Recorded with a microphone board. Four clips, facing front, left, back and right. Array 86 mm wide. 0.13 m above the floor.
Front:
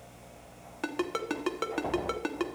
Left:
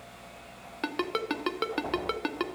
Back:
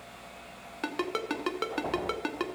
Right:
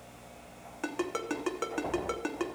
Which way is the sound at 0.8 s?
105° left.